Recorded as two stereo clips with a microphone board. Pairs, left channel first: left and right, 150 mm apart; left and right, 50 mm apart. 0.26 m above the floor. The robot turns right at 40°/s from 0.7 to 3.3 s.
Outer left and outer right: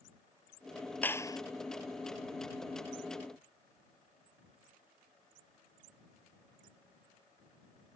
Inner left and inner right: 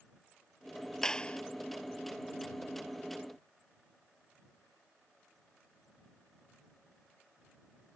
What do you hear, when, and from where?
1.0 s a clap: 10° left (ahead or behind); by 1.4 s 25° left (ahead or behind)